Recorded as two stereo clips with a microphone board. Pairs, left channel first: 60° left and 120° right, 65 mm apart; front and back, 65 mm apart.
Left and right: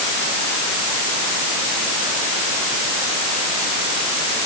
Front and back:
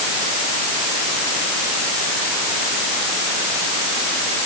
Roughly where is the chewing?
I don't hear chewing.